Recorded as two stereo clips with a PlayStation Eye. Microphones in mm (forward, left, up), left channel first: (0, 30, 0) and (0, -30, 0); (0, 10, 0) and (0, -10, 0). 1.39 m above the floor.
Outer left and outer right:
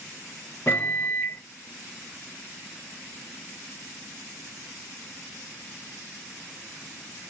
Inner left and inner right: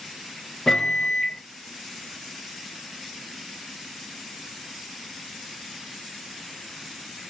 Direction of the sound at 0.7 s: 35° left (ahead or behind).